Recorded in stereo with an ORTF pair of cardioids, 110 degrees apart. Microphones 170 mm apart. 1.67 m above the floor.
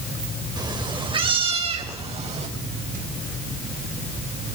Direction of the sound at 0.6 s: 25° right.